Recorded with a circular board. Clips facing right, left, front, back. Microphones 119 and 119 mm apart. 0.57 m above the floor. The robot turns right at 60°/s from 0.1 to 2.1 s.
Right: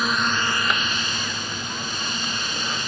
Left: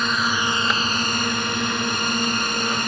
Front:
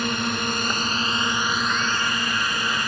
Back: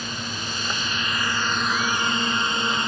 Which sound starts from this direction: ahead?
A drone, at 0.0 s.